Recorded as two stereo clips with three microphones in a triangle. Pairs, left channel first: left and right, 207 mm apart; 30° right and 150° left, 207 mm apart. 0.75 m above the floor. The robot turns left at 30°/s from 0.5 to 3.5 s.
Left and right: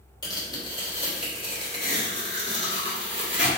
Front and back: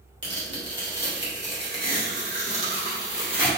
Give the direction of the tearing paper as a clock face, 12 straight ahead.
7 o'clock.